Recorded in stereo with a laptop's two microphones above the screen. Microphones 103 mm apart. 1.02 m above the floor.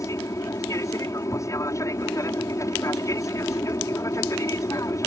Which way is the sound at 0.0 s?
30° left (ahead or behind).